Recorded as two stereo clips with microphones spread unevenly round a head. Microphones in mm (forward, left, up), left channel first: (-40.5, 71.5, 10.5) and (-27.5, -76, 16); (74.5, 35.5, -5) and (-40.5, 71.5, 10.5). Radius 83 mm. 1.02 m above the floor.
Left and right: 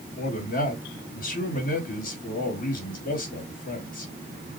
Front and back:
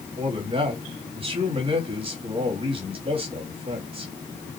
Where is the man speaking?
120° left, 2 m.